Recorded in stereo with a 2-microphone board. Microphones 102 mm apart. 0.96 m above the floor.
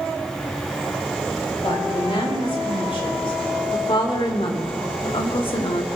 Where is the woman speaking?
65° left (ahead or behind), 5 m; by 5.8 s 60° left (ahead or behind), 1.4 m.